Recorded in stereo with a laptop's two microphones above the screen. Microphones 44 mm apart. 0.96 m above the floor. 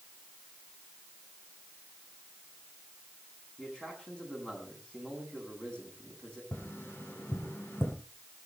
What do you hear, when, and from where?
3.6 s a man speaking: 20° left (ahead or behind), 10 m
6.5 s tapping: 65° left (ahead or behind), 5.5 m